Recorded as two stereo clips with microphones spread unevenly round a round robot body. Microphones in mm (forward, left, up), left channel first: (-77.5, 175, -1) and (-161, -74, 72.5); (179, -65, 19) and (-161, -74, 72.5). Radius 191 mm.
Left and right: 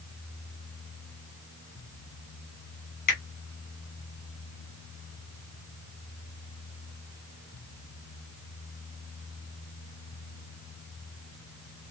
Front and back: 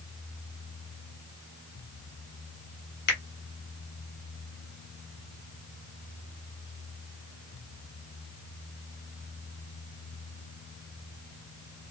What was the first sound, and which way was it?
A finger snap, 45° left.